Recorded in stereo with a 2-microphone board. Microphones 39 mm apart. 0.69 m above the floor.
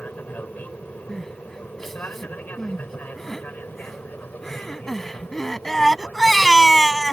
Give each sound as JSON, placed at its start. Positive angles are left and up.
{"t": 0.0, "sound": "an aircraft", "side_deg": 40}
{"t": 1.1, "sound": "crying", "side_deg": 5}